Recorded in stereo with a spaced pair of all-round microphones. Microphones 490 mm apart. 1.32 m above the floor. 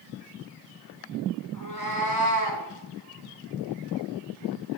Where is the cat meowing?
35° left (ahead or behind), 2.5 m; by 2.6 s 50° left (ahead or behind), 2 m.